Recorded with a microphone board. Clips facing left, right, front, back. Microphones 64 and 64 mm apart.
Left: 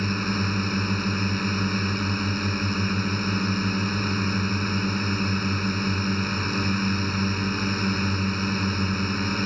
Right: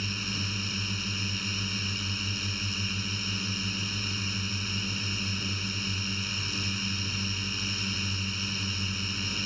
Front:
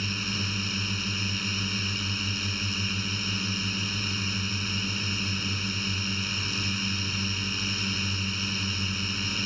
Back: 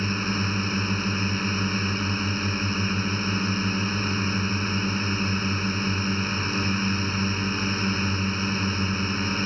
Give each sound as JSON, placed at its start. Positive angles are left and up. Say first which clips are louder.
{"t": 0.0, "sound": "a drone", "louder": "left 10 dB, back 6 dB", "azimuth_deg": 130}